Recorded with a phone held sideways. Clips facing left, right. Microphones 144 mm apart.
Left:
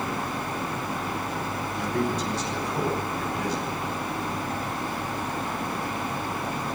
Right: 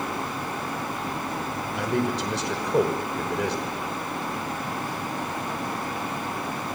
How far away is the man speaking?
About 5.5 m.